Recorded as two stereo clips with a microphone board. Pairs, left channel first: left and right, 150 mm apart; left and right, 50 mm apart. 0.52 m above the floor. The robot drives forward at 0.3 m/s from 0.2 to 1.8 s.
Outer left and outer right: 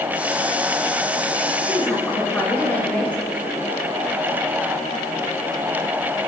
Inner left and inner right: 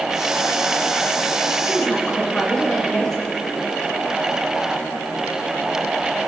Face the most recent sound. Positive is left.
turn(degrees=10)  # may be behind; listen again after turning